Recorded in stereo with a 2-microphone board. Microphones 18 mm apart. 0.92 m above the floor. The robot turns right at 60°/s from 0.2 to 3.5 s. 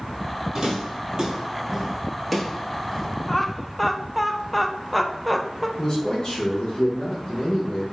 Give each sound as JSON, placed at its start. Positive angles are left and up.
{"t": 0.5, "sound": "footsteps", "side_deg": -30, "distance_m": 1.6}
{"t": 3.3, "sound": "laughter", "side_deg": 15, "distance_m": 0.5}
{"t": 5.8, "sound": "a man speaking", "side_deg": 45, "distance_m": 1.0}